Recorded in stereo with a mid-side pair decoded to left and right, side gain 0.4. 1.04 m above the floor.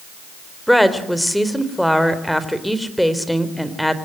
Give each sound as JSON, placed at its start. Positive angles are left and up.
{"t": 0.7, "sound": "a woman speaking", "azimuth_deg": 0, "distance_m": 3.5}